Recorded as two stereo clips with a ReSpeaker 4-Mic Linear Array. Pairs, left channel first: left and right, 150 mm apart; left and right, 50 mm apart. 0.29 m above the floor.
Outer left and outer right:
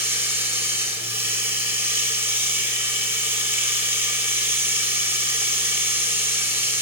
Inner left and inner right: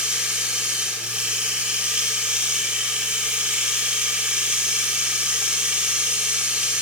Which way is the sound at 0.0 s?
15° right (ahead or behind).